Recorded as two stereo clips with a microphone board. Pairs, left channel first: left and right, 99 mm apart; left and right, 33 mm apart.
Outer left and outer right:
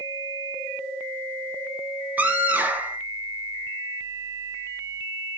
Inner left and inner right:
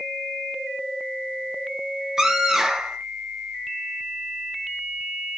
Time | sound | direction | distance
2.2 | a scream | 15° right (ahead or behind) | 4 m